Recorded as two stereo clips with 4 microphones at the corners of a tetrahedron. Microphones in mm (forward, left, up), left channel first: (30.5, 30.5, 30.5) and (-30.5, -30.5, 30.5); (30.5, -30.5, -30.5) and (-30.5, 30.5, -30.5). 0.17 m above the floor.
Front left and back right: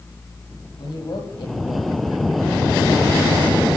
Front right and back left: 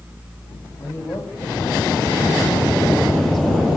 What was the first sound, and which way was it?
A man speaking, 20° left.